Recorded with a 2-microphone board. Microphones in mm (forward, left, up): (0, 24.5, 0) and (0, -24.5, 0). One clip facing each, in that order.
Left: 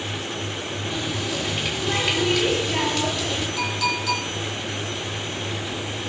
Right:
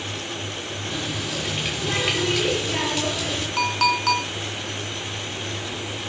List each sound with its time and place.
0.9 s a running tap: 10° right (ahead or behind), 4 m
3.6 s a clink: 55° right (ahead or behind), 2.5 m